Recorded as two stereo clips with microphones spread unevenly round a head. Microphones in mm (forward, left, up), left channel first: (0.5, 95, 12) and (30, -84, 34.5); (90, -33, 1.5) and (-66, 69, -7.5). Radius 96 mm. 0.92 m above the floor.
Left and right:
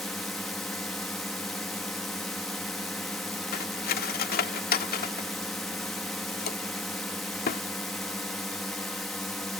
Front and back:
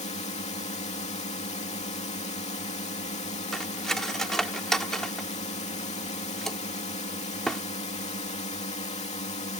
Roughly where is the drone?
Ahead.